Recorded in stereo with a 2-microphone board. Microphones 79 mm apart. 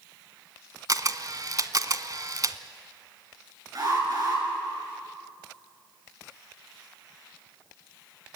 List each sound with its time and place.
0.9 s a camera shutter: 50° right (ahead or behind), 0.9 m
3.8 s an alarm: 50° right (ahead or behind), 8.5 m